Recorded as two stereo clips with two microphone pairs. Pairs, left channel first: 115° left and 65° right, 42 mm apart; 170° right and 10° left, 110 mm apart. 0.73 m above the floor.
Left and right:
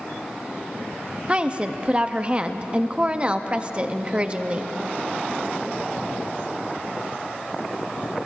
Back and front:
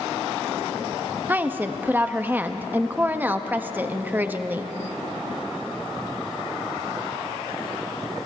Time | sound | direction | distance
1.3 | a woman speaking | 50° right | 0.6 m